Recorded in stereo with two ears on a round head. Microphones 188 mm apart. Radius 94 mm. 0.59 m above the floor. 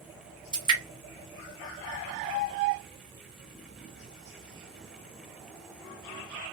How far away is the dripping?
About 1.7 m.